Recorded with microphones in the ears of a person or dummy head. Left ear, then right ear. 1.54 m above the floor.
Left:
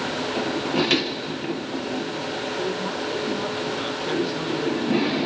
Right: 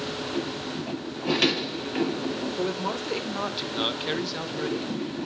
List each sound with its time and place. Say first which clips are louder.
2.6 s a man speaking: left 2 dB; 80° right, 1.8 m; by 5.3 s 10° left (ahead or behind), 2 m